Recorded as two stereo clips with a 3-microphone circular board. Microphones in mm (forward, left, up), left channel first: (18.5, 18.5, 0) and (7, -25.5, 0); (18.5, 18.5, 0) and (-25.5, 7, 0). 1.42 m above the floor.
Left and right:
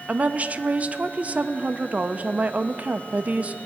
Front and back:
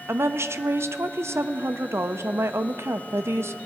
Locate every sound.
0.1 s a woman speaking: 165° right, 0.6 m